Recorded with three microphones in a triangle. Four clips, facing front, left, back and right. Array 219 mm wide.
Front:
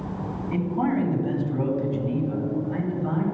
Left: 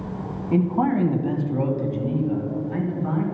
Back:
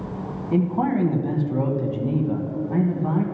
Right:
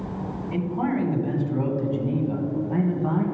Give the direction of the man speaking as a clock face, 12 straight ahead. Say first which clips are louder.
Left 5 dB, back 3 dB; 8 o'clock.